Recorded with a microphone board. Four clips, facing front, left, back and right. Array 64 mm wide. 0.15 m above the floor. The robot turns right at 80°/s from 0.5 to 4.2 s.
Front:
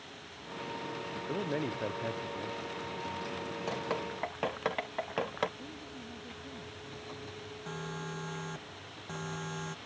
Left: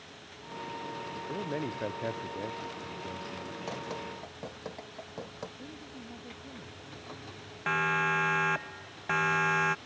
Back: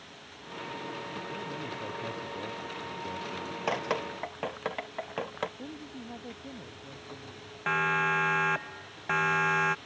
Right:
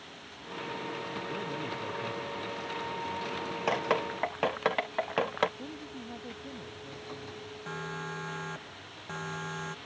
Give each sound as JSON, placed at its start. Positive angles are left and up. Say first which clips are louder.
{"t": 1.3, "sound": "a man speaking", "louder": "left 5 dB, front 3 dB", "azimuth_deg": 15}
{"t": 3.7, "sound": "dripping", "louder": "right 11 dB, back 6 dB", "azimuth_deg": -130}
{"t": 5.6, "sound": "a woman speaking", "louder": "right 3 dB, back 3 dB", "azimuth_deg": -145}
{"t": 7.7, "sound": "a siren", "louder": "left 11 dB, back 15 dB", "azimuth_deg": 145}